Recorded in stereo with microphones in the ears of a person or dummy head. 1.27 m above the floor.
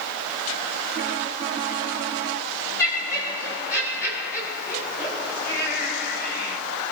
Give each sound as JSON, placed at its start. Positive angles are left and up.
{"t": 2.8, "sound": "laughter", "side_deg": 15, "distance_m": 6.0}